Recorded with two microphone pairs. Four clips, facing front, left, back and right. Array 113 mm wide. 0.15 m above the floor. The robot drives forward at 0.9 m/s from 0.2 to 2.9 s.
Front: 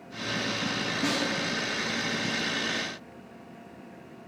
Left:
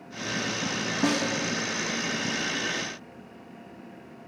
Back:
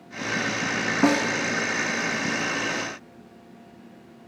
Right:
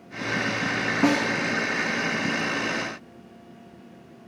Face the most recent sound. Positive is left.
turn(degrees=-170)